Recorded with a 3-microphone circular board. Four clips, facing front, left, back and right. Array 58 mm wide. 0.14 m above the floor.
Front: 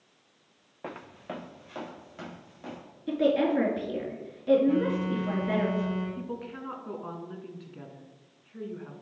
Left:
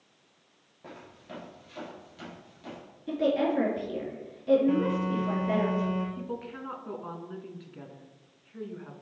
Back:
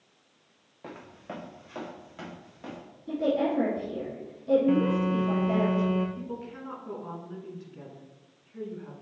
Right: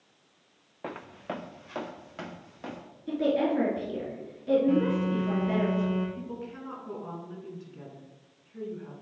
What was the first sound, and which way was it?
Footsteps, 60° right.